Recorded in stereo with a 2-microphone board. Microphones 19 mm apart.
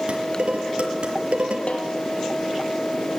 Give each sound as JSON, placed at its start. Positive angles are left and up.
{"t": 0.1, "sound": "dishes clattering", "side_deg": -65, "distance_m": 5.0}
{"t": 1.7, "sound": "a snare drum", "side_deg": 65, "distance_m": 4.5}